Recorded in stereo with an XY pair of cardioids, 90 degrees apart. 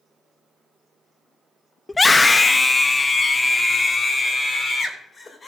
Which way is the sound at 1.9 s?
20° left.